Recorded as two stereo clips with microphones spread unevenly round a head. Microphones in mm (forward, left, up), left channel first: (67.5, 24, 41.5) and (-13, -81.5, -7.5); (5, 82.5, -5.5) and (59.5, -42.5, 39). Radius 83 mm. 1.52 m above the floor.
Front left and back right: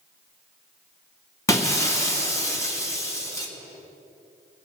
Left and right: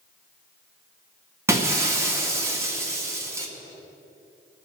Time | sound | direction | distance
1.5 | breaking glass | 5° right | 1.9 m